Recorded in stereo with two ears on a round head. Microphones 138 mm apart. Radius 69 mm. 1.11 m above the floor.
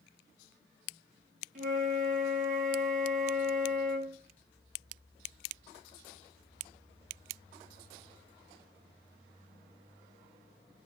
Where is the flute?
55° right (ahead or behind), 0.8 m.